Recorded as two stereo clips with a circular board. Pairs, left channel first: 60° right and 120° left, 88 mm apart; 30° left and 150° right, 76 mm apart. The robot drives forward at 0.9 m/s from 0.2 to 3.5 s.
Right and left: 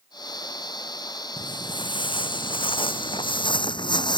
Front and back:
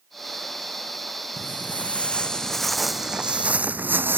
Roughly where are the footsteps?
Ahead right.